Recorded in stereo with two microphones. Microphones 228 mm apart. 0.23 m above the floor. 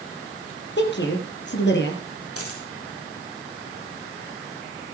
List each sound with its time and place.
0.8 s a woman speaking: 50° left (ahead or behind), 4.5 m
2.4 s a dropped coin: 85° left, 4.5 m